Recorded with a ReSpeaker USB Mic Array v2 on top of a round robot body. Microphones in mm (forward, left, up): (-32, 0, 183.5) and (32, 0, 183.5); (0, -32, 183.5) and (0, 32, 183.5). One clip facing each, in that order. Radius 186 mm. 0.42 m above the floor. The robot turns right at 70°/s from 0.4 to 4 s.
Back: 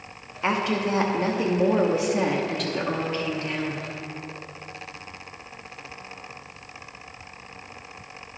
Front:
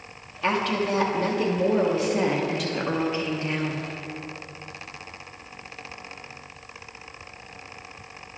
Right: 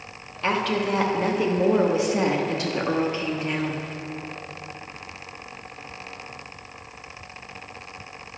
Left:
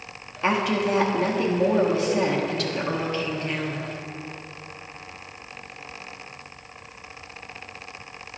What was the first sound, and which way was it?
A woman speaking, 130° left.